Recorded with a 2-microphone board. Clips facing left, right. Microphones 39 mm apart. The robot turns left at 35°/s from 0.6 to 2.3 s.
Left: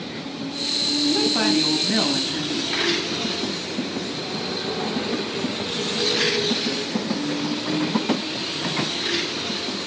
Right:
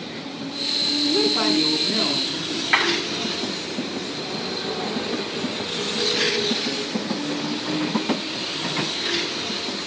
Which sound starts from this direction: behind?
A woman speaking, at 1.0 s.